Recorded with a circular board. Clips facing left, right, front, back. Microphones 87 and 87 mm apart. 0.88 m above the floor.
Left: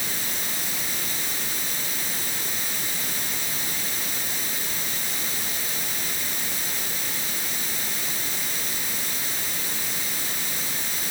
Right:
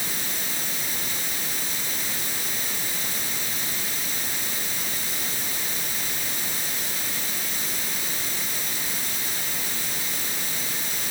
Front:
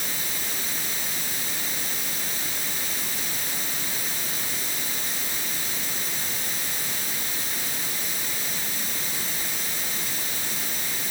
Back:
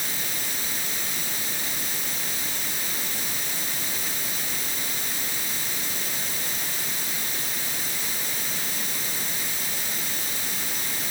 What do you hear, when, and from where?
Only background noise.